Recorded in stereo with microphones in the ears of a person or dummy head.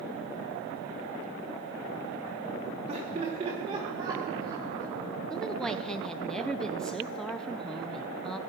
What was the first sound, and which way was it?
Laughter, 30° right (ahead or behind).